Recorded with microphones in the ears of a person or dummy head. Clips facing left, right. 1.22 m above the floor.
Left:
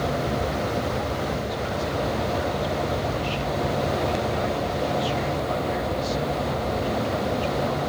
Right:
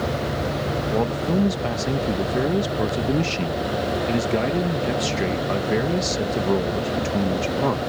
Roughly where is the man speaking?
Right.